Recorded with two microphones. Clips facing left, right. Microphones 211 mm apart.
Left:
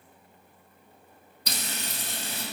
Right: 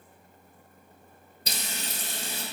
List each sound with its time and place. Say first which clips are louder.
1.5 s frying: left 1 dB; 25° right (ahead or behind), 1.2 m